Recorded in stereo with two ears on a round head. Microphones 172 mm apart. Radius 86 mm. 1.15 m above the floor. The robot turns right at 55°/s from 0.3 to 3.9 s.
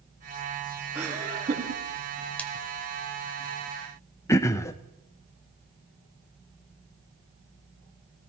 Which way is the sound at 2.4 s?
10° left (ahead or behind).